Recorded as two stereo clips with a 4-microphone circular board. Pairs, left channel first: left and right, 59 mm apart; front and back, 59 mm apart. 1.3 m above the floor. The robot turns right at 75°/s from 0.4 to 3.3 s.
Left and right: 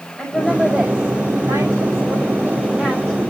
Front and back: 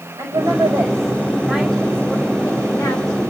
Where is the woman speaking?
165° left, 5.5 m; by 3.3 s 20° left, 5.5 m.